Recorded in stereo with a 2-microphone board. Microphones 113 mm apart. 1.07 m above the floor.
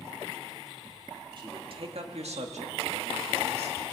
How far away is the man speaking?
About 2 m.